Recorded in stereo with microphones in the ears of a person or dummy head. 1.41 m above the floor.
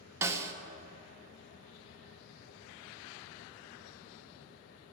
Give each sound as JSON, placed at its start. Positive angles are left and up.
{"t": 0.2, "sound": "a snare drum", "side_deg": -20, "distance_m": 0.7}